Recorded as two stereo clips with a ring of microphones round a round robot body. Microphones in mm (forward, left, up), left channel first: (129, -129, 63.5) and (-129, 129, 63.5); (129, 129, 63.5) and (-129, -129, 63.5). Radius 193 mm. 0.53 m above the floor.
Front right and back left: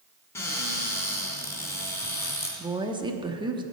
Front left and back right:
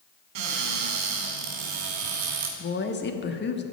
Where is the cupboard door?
130° right, 2 m.